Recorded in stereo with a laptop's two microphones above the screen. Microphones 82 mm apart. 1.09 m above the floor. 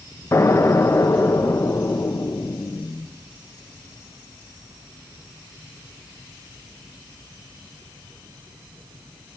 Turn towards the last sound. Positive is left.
turn(degrees=35)  # may be behind; listen again after turning